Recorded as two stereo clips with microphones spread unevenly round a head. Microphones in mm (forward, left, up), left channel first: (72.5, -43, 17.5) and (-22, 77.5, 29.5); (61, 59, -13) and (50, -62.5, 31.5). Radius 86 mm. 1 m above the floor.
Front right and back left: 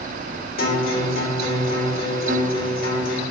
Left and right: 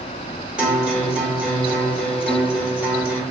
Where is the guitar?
30° right, 0.8 m.